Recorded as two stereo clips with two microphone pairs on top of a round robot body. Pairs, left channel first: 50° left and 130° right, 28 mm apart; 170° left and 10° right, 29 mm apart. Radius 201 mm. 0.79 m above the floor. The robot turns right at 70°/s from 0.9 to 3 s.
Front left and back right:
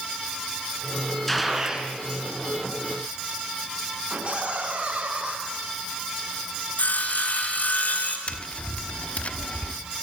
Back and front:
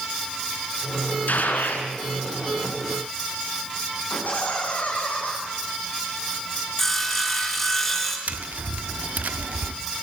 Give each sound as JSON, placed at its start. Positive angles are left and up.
{"t": 1.3, "sound": "a gunshot", "azimuth_deg": 135, "distance_m": 3.5}
{"t": 4.1, "sound": "laughter", "azimuth_deg": -175, "distance_m": 8.0}
{"t": 6.8, "sound": "sawing", "azimuth_deg": 85, "distance_m": 4.0}
{"t": 8.3, "sound": "tapping", "azimuth_deg": 10, "distance_m": 1.3}